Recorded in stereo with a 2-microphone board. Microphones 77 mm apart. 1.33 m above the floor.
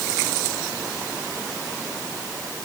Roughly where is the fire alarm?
I don't hear a fire alarm.